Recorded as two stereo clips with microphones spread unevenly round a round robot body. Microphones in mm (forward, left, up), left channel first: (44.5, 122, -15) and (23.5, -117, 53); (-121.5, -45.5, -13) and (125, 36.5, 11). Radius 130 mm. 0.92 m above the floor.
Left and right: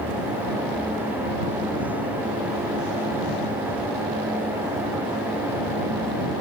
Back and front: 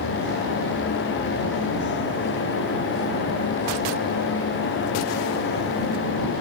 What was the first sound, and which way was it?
Only background noise.